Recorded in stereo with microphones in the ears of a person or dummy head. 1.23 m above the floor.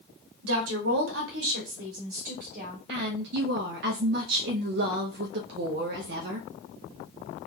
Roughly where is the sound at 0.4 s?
Right.